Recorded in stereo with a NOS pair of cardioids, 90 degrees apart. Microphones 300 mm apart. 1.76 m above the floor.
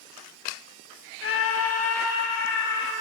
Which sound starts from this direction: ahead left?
A scream, at 1.2 s.